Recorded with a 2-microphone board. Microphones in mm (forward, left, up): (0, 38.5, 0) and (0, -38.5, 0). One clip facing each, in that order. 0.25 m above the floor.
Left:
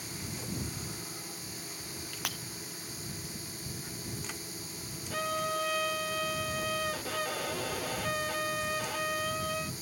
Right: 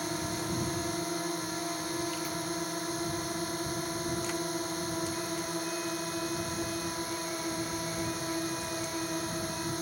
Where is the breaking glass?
75° left (ahead or behind).